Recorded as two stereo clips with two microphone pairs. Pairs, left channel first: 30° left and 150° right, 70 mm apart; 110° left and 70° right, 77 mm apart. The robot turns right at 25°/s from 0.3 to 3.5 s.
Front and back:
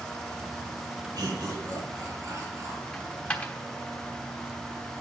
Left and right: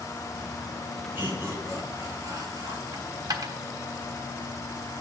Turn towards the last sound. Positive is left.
turn(degrees=-40)